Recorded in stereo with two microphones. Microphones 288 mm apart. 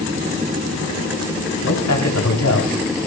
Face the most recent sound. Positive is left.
turn(degrees=75)  # may be behind; listen again after turning